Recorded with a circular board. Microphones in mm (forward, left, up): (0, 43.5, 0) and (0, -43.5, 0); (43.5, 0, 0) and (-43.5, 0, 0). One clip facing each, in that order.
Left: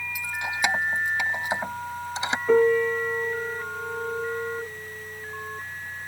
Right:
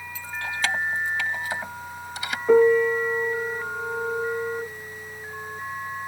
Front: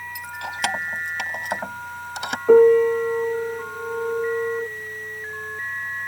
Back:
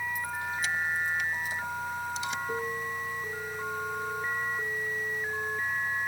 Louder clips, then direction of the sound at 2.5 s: Right 3 dB, front 21 dB; 10° right.